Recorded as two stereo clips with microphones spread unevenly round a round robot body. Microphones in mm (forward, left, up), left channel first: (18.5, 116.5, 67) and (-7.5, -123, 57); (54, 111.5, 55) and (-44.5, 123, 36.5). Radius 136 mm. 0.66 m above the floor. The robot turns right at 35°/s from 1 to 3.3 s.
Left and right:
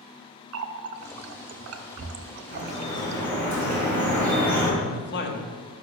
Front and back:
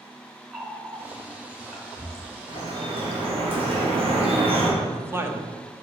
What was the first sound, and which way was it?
A running tap, 110° right.